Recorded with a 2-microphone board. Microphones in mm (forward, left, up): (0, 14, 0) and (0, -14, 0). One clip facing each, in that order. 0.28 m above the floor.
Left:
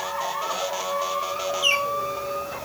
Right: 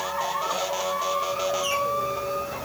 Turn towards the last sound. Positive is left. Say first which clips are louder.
# left 4 dB
turn(degrees=50)  # may be behind; listen again after turning